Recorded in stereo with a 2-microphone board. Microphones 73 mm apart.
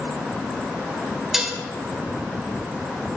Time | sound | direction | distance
1.3 | dishes clattering | 5° right (ahead or behind) | 2.5 m